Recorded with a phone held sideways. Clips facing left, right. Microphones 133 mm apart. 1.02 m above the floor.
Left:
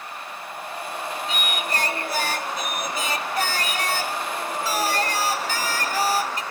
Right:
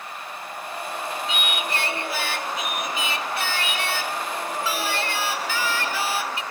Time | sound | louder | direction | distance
1.3 | singing | left 1 dB | 40° left (ahead or behind) | 0.6 m